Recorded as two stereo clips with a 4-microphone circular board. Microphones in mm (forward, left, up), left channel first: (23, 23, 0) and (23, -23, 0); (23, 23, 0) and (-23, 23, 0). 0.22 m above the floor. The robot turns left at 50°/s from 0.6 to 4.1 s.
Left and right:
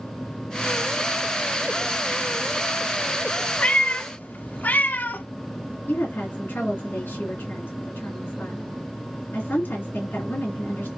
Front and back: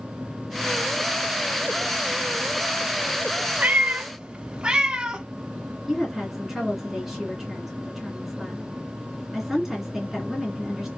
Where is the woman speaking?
95° left, 2.5 m.